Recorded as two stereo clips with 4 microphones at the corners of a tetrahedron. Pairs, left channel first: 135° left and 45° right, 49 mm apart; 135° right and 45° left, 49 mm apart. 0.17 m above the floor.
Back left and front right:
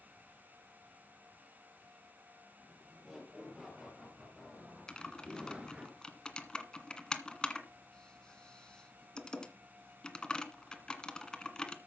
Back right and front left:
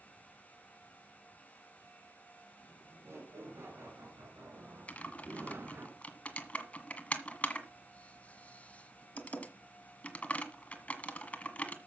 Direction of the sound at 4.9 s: 170° right.